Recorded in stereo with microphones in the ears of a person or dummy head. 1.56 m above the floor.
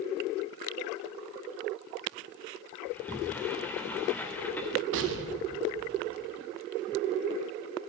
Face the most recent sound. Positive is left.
turn(degrees=-70)  # may be behind; listen again after turning